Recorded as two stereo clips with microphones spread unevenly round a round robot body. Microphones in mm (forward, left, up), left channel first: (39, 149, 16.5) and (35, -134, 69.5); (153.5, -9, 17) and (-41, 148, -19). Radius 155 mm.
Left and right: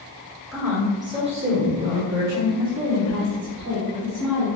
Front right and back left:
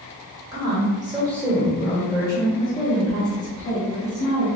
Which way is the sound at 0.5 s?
155° left.